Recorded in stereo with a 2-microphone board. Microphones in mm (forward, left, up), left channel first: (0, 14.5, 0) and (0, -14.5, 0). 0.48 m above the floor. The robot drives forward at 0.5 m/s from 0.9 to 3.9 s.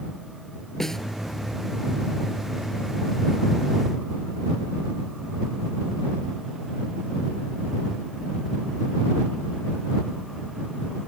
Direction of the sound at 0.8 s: 15° left (ahead or behind).